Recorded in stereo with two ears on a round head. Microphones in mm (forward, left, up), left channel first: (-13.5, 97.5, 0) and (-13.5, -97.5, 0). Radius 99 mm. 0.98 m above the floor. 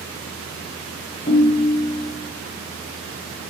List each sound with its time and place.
1.3 s a ringtone: 30° left (ahead or behind), 1.4 m